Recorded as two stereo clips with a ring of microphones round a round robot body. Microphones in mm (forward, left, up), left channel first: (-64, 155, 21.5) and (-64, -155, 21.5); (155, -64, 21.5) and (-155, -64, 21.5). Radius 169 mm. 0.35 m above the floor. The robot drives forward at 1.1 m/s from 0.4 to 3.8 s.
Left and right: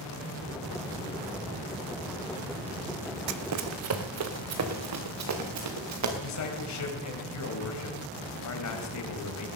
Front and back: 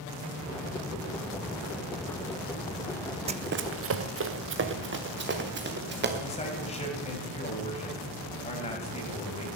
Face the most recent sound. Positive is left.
turn(degrees=70)